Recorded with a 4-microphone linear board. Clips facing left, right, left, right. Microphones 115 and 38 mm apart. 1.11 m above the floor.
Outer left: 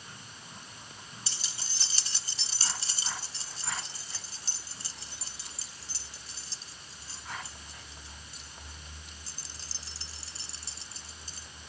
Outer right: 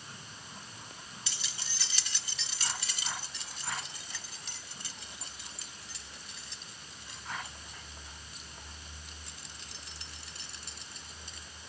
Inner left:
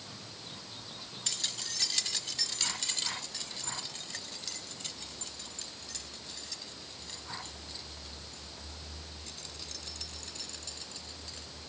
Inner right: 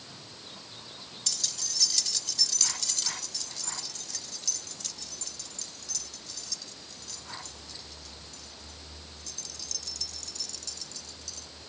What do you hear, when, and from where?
1.3 s keys jangling: 35° left (ahead or behind); by 11.4 s 30° left (ahead or behind)